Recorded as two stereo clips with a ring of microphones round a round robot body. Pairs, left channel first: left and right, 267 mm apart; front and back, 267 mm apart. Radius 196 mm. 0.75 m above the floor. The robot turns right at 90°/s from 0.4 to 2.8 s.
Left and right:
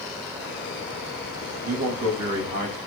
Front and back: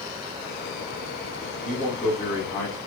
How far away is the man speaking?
About 1.5 m.